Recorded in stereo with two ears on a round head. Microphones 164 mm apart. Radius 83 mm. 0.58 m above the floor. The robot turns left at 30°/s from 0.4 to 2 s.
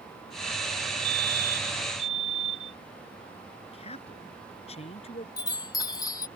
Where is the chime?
20° left (ahead or behind).